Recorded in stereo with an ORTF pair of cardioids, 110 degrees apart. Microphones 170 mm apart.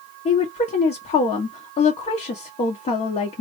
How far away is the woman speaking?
About 1.1 m.